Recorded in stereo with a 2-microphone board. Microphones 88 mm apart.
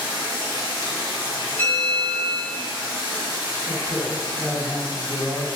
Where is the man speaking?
10° left (ahead or behind), 1.5 m.